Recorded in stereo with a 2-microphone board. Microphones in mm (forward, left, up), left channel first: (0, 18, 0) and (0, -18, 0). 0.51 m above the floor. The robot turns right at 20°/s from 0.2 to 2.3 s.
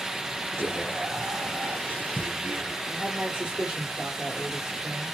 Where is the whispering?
105° right, 2 m; by 2.8 s 70° right, 2 m.